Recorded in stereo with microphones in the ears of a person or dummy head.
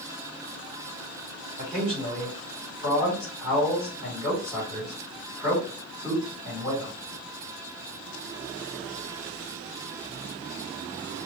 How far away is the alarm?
No alarm in this recording.